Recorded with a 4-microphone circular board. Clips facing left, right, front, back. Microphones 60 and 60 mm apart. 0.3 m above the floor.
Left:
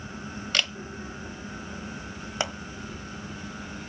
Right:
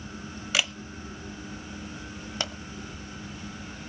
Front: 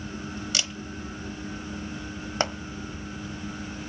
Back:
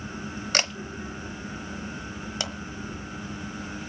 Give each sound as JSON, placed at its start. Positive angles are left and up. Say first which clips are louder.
{"t": 0.5, "sound": "a camera shutter", "louder": "right 1 dB, back 7 dB", "azimuth_deg": -170, "distance_m": 0.7}
{"t": 2.4, "sound": "a pop", "louder": "left 4 dB, front 8 dB", "azimuth_deg": 30, "distance_m": 1.2}